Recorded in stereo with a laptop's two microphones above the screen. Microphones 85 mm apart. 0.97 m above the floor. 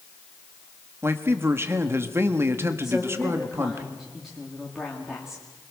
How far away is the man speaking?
About 1.7 m.